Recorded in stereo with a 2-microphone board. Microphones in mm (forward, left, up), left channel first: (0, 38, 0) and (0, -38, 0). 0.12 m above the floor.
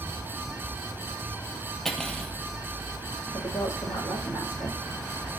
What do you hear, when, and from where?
1.9 s cutlery clinking: 5° left (ahead or behind), 2 m
3.3 s a woman speaking: 40° left (ahead or behind), 6 m